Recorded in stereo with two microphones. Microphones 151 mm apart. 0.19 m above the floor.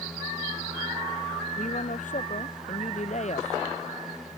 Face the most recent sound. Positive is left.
turn(degrees=50)  # may be behind; listen again after turning